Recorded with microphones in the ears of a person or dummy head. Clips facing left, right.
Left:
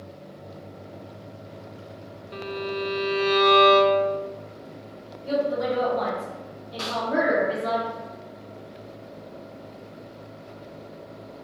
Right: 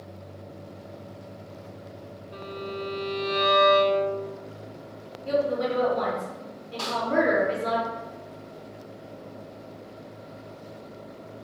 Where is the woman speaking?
30° right (ahead or behind), 1.1 m.